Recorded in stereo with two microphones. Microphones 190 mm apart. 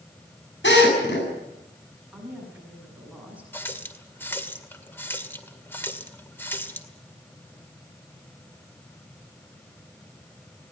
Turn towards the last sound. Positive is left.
turn(degrees=10)  # may be behind; listen again after turning